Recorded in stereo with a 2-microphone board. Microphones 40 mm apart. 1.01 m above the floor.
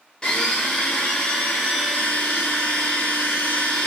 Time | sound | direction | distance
0.2 | a blender | 25° left (ahead or behind) | 0.9 m